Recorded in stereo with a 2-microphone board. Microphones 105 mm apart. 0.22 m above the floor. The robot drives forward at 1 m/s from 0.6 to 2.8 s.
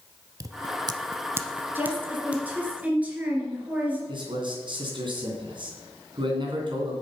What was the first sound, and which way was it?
Scissors, 40° right (ahead or behind).